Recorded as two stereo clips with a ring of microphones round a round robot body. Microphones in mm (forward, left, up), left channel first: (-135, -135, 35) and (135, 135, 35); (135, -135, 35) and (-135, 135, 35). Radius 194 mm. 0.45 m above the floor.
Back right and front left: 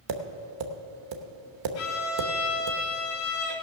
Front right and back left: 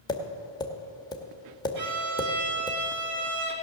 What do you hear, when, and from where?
0.1 s tapping: 35° left, 1.1 m
1.8 s a violin: 175° left, 2.5 m